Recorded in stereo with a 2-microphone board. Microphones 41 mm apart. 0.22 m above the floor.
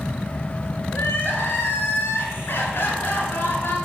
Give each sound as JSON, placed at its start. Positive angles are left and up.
{"t": 0.9, "sound": "crying", "side_deg": 55, "distance_m": 2.5}